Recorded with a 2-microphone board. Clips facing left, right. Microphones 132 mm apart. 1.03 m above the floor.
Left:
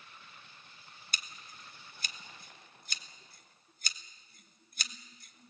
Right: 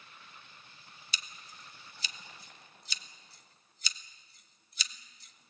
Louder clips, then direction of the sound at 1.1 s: Even; 50° left (ahead or behind).